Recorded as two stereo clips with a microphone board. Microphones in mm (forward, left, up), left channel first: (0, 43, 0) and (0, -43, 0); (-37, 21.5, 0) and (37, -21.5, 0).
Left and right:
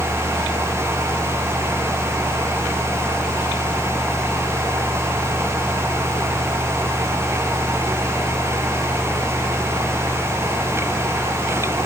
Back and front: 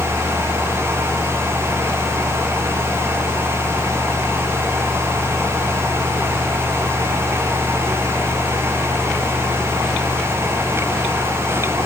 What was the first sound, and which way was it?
Only background noise.